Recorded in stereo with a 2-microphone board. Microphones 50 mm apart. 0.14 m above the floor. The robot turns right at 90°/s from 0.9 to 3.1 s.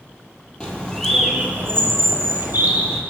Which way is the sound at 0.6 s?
155° left.